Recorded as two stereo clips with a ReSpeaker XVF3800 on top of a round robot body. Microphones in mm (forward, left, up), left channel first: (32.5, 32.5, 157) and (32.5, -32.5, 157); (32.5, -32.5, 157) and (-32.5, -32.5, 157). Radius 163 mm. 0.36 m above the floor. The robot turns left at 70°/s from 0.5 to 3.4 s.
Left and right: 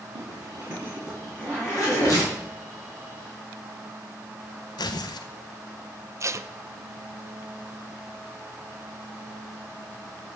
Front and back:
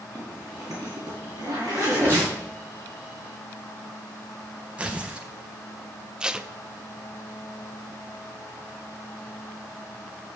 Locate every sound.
0.1 s a zipper: 135° right, 6 m; by 2.2 s 110° left, 6 m
2.1 s tearing paper: 120° left, 4.5 m; by 2.3 s 100° left, 4.5 m
4.8 s tearing paper: 105° left, 0.7 m
6.2 s tape being pulled: 105° right, 0.8 m